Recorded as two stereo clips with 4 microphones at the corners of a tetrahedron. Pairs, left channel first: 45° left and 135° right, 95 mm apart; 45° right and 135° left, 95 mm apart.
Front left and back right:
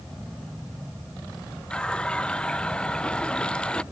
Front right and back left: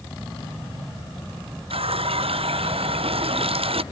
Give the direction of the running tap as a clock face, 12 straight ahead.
8 o'clock.